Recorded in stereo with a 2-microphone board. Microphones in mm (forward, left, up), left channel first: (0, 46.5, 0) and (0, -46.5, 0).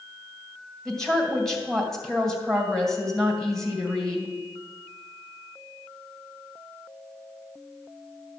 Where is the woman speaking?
5° left (ahead or behind), 2.5 m.